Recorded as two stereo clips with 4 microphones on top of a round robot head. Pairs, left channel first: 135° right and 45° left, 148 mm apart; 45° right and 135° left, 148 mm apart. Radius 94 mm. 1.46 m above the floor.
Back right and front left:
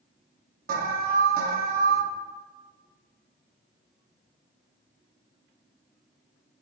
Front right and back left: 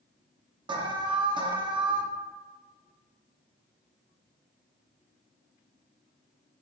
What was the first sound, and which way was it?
An alarm, 75° left.